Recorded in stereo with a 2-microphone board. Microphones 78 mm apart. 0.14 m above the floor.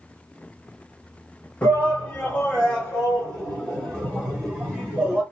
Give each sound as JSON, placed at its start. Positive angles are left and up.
{"t": 1.6, "sound": "a shout", "side_deg": 20, "distance_m": 1.9}